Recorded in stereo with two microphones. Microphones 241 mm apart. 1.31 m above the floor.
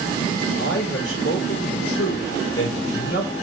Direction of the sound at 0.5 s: 60° left (ahead or behind).